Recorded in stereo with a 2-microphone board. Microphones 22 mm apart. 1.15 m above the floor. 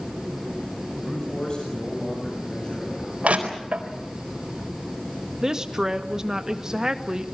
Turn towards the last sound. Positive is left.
turn(degrees=-30)  # may be behind; listen again after turning